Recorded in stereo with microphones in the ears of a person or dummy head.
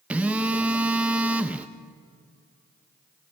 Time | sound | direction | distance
0.1 | a phone buzzing | 5° right (ahead or behind) | 0.6 m